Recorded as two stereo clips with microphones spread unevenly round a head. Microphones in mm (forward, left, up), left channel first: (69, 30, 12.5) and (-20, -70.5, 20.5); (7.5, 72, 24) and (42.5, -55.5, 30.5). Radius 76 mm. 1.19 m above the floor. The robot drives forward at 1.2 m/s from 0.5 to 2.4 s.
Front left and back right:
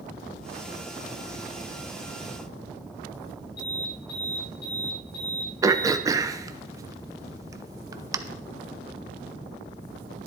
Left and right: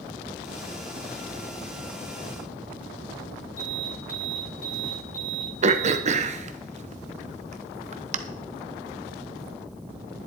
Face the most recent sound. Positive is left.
turn(degrees=-70)